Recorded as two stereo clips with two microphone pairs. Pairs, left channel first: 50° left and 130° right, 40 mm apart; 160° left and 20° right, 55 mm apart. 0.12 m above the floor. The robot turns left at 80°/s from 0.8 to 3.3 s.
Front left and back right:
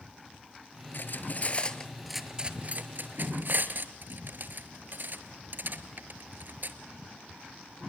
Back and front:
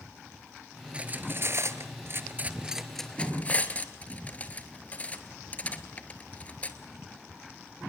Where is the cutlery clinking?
45° left, 1.2 m; by 6.8 s 145° right, 1.2 m.